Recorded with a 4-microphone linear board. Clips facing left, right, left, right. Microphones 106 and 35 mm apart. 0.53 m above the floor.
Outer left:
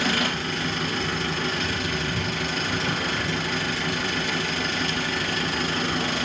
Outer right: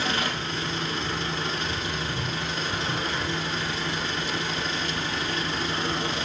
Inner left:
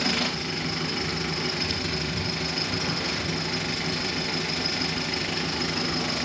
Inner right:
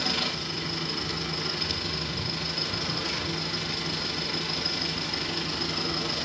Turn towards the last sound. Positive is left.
turn(degrees=85)